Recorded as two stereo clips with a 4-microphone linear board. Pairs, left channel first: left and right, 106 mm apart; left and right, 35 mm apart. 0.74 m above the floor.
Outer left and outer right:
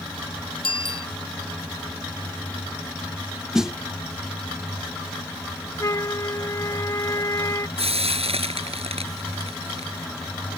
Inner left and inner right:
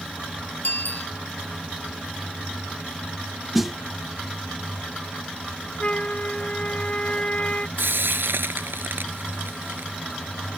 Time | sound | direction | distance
0.6 | a bicycle bell | 60° left (ahead or behind) | ?
3.5 | a snare drum | 5° right (ahead or behind) | ?
5.8 | a flute | 35° left (ahead or behind) | ?
7.8 | frying | 90° right | ?